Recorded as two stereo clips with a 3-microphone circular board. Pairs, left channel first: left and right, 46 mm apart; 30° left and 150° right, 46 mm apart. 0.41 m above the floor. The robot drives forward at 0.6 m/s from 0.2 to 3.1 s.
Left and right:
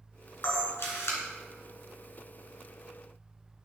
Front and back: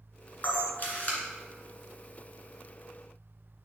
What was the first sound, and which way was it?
A camera shutter, 75° left.